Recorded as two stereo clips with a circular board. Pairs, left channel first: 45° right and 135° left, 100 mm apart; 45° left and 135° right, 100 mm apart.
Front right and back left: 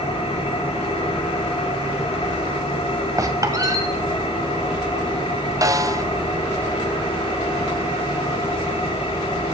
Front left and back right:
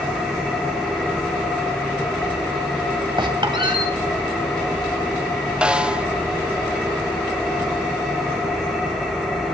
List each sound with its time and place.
0.0 s an engine running: 40° right, 7 m
3.2 s a squeak: 170° right, 2 m
5.6 s a snare drum: 150° left, 0.6 m